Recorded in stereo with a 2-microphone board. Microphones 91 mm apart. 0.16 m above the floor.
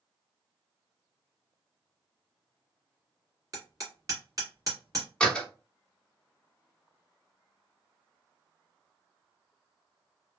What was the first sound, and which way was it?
Hammering, 40° right (ahead or behind).